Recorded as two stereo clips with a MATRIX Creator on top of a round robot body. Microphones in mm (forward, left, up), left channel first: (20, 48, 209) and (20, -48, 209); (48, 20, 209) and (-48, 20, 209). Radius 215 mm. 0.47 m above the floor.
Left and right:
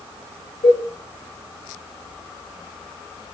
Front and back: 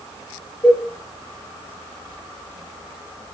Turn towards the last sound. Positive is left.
turn(degrees=80)